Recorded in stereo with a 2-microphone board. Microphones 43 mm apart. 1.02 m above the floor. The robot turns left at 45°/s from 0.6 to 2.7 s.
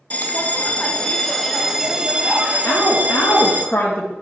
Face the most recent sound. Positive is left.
turn(degrees=50)  # may be behind; listen again after turning